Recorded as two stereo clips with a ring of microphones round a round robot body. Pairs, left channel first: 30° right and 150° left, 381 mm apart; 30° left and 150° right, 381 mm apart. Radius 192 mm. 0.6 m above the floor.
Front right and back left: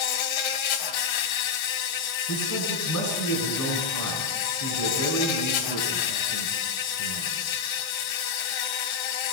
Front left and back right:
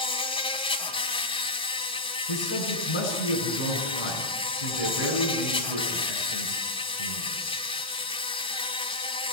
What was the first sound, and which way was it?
An insect, 45° right.